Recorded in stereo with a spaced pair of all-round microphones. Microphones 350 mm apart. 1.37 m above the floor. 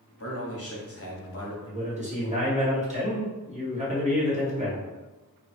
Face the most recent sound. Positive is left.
turn(degrees=-20)  # may be behind; listen again after turning